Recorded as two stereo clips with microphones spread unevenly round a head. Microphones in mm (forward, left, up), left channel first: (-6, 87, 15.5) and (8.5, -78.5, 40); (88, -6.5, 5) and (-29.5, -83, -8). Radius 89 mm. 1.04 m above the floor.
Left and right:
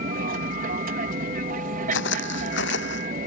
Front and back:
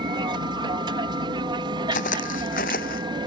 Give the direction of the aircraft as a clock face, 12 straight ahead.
3 o'clock.